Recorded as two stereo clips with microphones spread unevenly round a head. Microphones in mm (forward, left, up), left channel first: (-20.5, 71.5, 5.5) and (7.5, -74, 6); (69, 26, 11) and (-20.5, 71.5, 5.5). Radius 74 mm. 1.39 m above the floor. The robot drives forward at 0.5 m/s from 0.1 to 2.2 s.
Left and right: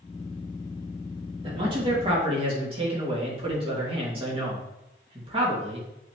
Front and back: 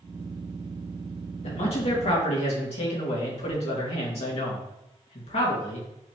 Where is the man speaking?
20° right, 2.5 m; by 5.9 s 25° right, 2.5 m.